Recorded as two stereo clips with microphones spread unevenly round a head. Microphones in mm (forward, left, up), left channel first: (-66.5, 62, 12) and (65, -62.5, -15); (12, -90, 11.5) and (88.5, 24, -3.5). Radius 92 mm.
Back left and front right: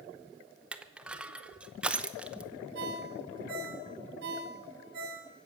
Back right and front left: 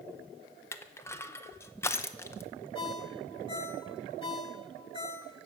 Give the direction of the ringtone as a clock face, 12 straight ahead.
3 o'clock.